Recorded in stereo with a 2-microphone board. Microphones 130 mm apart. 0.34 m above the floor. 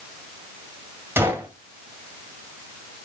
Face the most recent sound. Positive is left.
turn(degrees=-15)  # may be behind; listen again after turning